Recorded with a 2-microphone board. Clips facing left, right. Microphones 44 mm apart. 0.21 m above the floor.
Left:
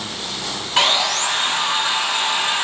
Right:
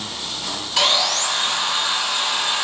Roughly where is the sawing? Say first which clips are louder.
Left 2 dB; left.